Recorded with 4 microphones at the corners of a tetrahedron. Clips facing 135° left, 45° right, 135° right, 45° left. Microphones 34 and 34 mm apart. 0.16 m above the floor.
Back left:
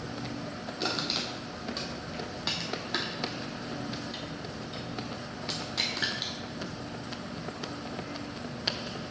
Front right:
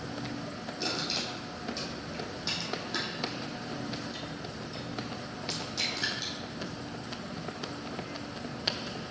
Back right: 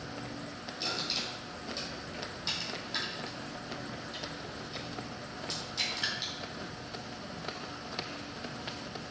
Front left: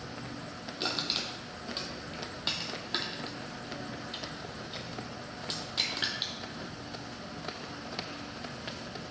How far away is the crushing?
About 1.0 m.